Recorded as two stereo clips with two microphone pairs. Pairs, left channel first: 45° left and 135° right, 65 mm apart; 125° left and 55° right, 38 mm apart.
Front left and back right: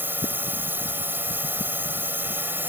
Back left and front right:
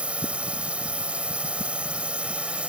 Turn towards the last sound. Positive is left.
turn(degrees=-95)